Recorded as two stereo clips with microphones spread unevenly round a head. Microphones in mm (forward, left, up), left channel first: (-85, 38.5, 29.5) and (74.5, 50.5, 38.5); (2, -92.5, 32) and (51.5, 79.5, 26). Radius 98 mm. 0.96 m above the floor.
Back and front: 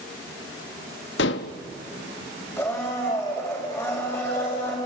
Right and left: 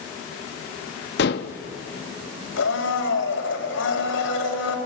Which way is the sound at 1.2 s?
145° right.